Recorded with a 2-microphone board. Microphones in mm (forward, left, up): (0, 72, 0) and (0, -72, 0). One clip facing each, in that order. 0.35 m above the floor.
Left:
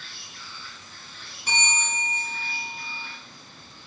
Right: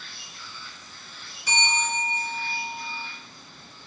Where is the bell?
60° left (ahead or behind), 2 m.